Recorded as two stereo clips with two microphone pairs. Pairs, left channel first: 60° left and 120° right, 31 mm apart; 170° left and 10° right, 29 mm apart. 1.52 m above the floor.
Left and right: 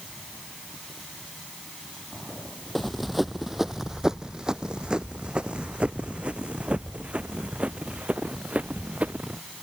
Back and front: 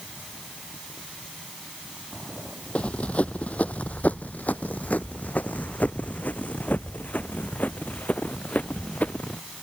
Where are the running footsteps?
140° left; by 9.4 s 160° right.